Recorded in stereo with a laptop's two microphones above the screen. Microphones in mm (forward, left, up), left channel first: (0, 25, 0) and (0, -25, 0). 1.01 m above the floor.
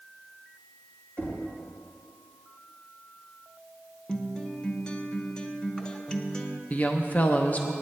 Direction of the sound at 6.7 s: 30° left (ahead or behind).